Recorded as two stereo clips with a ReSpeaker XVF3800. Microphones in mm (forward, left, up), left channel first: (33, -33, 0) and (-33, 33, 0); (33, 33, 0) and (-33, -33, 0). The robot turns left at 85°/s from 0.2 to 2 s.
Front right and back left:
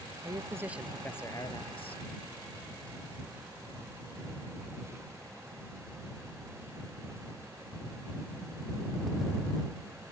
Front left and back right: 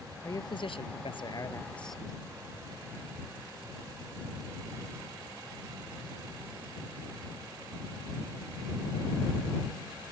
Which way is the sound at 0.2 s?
100° left.